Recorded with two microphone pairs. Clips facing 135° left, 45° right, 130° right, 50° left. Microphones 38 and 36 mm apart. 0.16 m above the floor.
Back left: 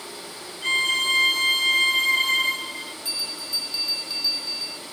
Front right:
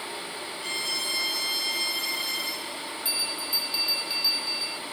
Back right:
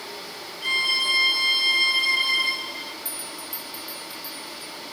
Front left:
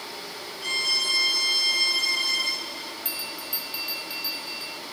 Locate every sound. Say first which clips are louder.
0.6 s a violin: back left 11 dB, back right 4 dB; 165° left
3.0 s a bell: front right 2 dB, front left 2 dB; 25° left